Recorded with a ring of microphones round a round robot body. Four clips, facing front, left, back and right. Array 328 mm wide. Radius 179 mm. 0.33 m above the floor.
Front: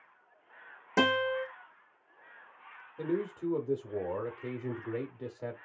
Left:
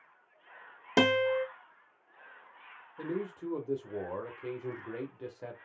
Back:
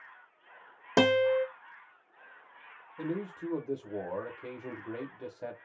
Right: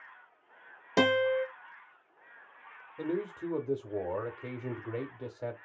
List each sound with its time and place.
1.0 s a guitar: 160° left, 1.0 m
3.0 s a man speaking: 85° right, 1.0 m